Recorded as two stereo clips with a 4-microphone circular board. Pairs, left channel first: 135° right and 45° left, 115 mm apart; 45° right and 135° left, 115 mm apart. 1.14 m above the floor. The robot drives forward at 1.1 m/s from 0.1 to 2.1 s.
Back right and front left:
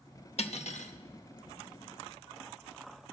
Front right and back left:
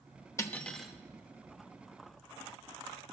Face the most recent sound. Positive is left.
turn(degrees=-160)